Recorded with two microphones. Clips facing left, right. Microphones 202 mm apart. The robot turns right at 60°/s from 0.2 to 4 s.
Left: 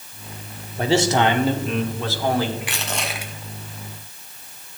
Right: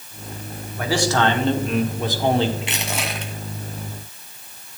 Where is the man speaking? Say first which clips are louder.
Left 2 dB; 130° left, 1.3 m; by 2.5 s 130° right, 1.3 m.